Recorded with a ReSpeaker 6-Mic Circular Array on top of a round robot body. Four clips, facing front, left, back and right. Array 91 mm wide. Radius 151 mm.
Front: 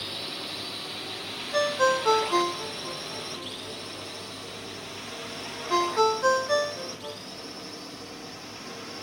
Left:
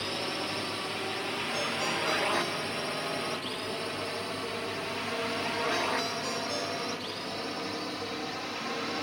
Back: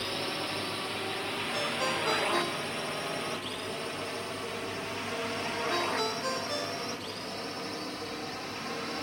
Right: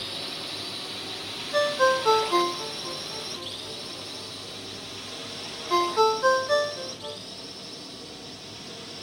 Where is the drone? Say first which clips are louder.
Left 5 dB, back 4 dB; 130° left; by 9.0 s 110° left.